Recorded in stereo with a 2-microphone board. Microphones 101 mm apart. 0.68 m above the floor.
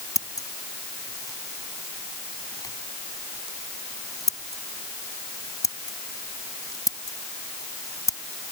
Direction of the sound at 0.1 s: 35° left (ahead or behind).